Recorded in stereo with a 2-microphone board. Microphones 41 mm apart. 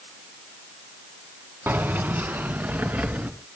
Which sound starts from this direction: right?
Keys jangling, at 1.7 s.